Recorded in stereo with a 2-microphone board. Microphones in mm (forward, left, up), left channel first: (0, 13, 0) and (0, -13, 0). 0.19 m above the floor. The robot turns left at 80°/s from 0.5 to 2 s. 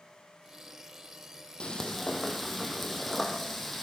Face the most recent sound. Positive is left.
turn(degrees=5)